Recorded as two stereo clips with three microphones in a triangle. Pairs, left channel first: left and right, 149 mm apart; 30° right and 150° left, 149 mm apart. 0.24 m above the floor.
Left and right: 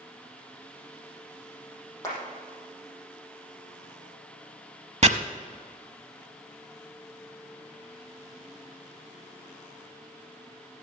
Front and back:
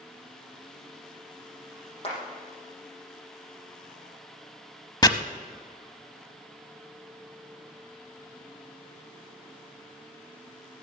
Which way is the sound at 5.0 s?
80° right.